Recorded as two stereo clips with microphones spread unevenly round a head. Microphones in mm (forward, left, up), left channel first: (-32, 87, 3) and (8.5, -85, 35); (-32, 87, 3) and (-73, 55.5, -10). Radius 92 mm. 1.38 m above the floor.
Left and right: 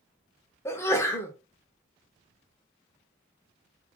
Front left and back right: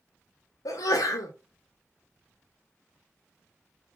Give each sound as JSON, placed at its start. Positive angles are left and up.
{"t": 0.7, "sound": "a sneeze", "azimuth_deg": 30, "distance_m": 0.7}